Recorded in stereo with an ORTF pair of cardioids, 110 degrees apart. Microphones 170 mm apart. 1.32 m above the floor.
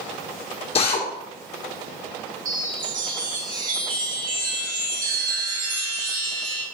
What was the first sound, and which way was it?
A drill, 35° left.